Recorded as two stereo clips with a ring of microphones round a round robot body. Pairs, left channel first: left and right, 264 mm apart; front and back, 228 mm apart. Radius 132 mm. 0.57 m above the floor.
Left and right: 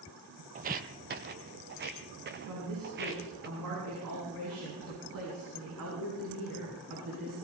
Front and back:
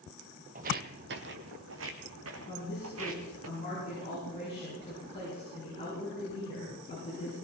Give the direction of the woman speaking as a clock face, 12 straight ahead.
2 o'clock.